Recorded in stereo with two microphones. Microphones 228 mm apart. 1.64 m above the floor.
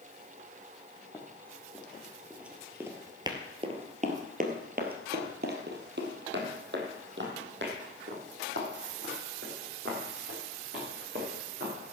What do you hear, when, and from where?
1.1 s running footsteps: 10° left (ahead or behind), 2.5 m; by 11.9 s 50° right (ahead or behind), 6.5 m